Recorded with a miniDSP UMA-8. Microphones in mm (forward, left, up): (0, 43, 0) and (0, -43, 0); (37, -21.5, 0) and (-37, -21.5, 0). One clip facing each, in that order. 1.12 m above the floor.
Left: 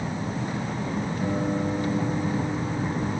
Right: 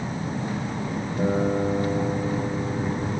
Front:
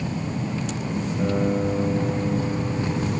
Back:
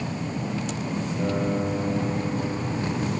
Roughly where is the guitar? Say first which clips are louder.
Right 5 dB, front 3 dB; right.